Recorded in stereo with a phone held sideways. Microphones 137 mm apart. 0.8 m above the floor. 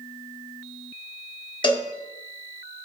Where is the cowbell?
35° left (ahead or behind), 0.6 m.